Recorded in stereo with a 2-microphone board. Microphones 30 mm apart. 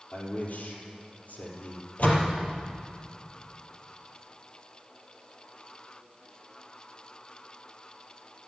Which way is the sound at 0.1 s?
60° left (ahead or behind).